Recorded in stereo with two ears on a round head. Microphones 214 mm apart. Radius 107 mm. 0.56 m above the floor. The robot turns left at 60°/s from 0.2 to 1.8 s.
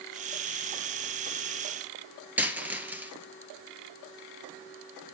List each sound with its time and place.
2.4 s a dropped coin: 5° right (ahead or behind), 2 m